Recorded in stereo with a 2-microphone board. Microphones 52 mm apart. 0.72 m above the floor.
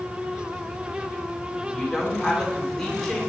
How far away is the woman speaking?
About 1.6 m.